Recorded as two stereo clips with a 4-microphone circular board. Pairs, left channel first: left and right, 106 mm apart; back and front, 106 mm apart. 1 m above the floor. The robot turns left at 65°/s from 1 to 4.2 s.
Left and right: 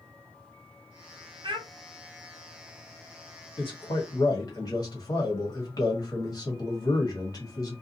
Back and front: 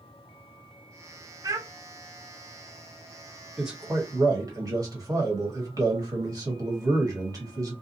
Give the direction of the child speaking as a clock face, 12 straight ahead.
2 o'clock.